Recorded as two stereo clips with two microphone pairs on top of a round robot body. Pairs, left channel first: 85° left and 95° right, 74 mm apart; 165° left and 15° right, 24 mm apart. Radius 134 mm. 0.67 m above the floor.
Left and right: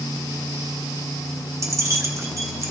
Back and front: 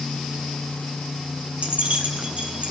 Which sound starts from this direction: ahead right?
Keys jangling, at 1.6 s.